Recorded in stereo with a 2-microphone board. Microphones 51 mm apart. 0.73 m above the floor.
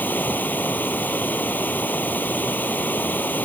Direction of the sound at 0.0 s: 40° left (ahead or behind).